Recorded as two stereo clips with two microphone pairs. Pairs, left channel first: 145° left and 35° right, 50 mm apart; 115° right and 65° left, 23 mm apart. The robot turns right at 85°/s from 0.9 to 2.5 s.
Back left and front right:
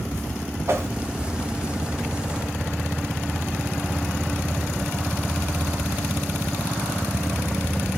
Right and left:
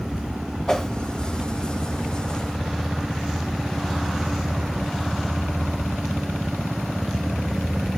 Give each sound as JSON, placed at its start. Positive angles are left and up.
{"t": 0.7, "sound": "a whoosh", "azimuth_deg": -55, "distance_m": 0.8}